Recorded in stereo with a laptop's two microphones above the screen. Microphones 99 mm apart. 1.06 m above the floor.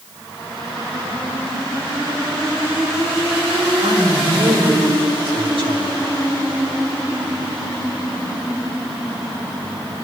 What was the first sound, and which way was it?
A man speaking, 75° right (ahead or behind).